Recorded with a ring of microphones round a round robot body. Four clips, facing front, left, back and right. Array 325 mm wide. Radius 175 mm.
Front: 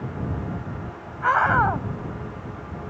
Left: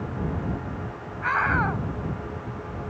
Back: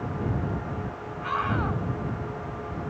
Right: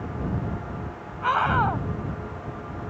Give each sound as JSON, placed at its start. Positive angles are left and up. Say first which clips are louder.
{"t": 1.2, "sound": "a scream", "louder": "right 2 dB, front 9 dB", "azimuth_deg": -20}